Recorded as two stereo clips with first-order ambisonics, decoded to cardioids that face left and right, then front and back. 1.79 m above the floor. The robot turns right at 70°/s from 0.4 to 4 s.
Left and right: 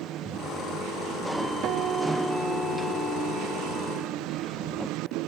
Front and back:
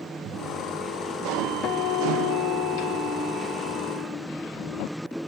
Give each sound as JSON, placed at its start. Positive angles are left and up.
{"t": 1.6, "sound": "a guitar", "azimuth_deg": -45}